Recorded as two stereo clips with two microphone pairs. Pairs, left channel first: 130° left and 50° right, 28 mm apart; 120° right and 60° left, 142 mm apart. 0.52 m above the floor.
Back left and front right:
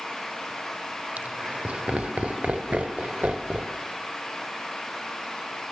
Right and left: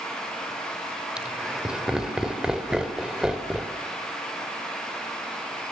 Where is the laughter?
25° right, 2 m.